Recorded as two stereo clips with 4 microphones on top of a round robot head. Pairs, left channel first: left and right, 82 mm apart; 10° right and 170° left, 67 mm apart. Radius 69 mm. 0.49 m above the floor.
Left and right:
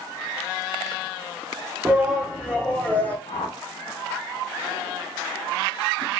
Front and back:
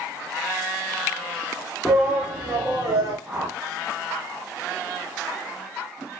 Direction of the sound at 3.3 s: 100° left.